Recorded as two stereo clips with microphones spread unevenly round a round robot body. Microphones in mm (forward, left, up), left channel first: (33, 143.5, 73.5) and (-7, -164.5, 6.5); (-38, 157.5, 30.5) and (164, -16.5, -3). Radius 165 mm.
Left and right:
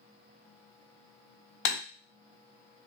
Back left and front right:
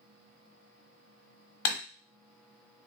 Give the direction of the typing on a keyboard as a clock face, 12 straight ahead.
8 o'clock.